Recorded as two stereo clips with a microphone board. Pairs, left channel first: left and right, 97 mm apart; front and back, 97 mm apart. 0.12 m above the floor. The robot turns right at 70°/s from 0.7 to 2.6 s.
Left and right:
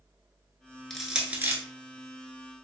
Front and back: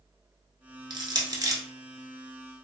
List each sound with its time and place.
0.9 s crushing: 175° left, 0.6 m; by 1.6 s 135° right, 0.6 m